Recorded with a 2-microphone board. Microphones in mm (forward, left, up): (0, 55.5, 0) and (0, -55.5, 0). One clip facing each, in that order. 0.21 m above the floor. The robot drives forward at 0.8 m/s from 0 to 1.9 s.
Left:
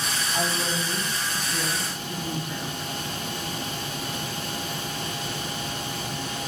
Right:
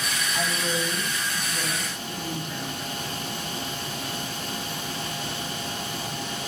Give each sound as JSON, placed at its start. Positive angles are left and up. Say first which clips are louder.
{"t": 0.3, "sound": "a woman speaking", "louder": "even", "side_deg": 25, "distance_m": 1.0}